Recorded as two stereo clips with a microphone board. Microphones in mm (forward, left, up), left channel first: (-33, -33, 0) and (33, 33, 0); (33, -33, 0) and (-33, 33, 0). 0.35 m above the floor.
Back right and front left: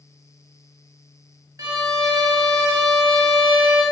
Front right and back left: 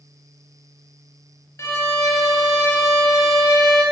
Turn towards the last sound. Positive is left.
turn(degrees=5)